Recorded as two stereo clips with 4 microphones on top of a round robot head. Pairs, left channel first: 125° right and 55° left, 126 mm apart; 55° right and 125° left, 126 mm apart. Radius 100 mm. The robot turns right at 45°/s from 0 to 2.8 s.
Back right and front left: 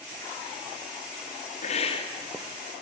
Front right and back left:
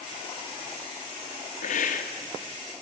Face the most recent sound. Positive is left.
turn(degrees=-35)